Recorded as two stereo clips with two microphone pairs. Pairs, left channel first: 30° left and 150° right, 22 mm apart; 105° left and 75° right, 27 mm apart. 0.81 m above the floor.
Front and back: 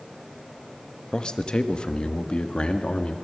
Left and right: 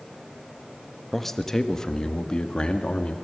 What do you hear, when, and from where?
1.1 s a man speaking: 30° left, 1.1 m; by 3.1 s 60° left, 1.9 m